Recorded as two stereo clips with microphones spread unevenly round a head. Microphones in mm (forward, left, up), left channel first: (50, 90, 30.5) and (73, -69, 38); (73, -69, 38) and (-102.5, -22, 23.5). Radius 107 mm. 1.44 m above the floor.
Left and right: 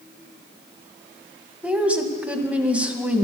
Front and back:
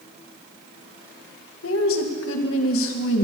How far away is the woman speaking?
About 1.9 m.